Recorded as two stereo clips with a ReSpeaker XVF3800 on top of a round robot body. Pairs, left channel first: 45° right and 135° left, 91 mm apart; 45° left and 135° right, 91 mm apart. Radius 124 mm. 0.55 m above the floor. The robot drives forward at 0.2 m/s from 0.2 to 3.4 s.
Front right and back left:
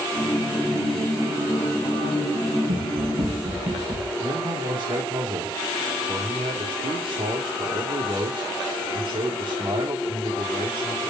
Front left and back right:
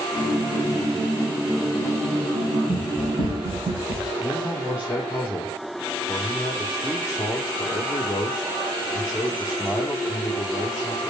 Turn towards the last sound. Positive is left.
turn(degrees=150)